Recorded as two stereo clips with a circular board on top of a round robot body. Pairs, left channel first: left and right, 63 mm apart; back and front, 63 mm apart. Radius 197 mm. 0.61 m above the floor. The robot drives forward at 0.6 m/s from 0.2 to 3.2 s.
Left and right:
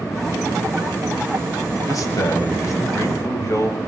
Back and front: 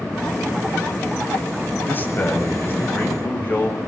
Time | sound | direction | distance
1.9 | a man speaking | 120° left | 5.5 m